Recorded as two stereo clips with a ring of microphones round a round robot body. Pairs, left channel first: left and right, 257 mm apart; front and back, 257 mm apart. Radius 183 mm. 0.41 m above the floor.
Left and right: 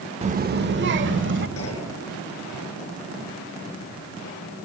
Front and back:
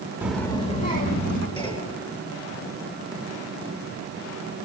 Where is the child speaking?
110° right, 0.7 m; by 1.5 s 50° right, 1.8 m.